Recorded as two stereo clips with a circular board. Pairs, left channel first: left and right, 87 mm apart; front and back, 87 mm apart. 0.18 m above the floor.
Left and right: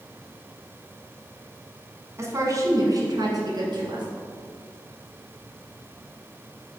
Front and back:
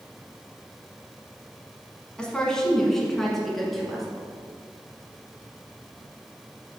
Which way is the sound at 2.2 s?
75° right.